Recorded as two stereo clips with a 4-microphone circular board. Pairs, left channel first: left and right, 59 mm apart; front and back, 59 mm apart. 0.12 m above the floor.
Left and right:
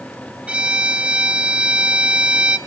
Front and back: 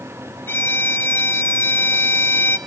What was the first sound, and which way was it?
A violin, 25° right.